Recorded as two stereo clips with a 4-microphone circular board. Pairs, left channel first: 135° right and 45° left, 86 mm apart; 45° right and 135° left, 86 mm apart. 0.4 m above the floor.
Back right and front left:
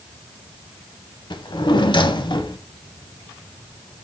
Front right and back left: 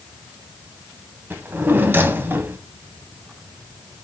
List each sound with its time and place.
1.3 s a drawer: 160° right, 0.6 m